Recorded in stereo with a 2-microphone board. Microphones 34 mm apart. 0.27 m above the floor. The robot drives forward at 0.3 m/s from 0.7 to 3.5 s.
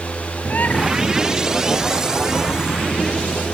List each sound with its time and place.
0.5 s a bird: 55° left (ahead or behind)